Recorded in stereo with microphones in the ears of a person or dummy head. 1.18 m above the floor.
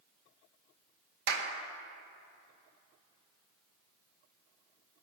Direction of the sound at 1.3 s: 60° right (ahead or behind).